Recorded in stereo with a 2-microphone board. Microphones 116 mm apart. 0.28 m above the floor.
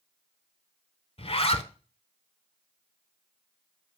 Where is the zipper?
55° left (ahead or behind), 0.6 m.